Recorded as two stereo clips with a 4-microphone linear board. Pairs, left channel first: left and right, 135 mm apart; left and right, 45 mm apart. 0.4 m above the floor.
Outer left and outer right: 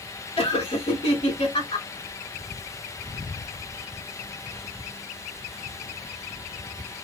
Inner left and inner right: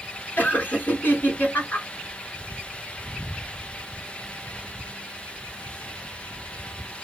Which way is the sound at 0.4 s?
45° left (ahead or behind).